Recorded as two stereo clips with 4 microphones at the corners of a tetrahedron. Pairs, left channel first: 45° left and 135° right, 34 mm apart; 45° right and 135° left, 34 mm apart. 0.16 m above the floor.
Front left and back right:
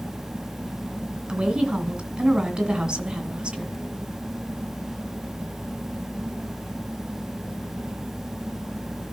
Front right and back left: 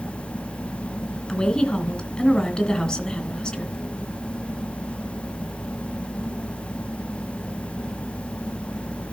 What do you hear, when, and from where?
1.3 s a woman speaking: 90° right, 2 m